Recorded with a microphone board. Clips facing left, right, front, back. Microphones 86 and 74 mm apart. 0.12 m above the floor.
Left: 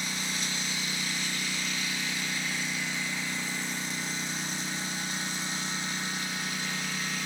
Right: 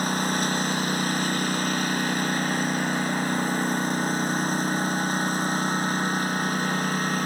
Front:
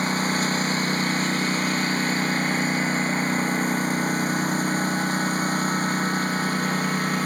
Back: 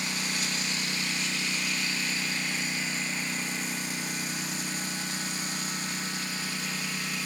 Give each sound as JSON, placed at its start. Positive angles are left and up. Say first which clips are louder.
{"t": 0.0, "sound": "a lawn mower", "louder": "right 11 dB, front 10 dB", "azimuth_deg": -45}